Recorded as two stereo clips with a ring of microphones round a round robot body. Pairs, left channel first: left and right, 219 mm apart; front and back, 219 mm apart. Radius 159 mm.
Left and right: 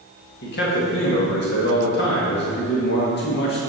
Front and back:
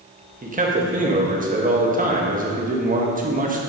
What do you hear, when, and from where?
0.4 s a man speaking: 130° left, 1.7 m